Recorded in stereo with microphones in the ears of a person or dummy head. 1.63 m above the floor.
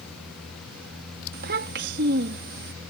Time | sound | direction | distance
1.3 | a child speaking | 60° right (ahead or behind) | ?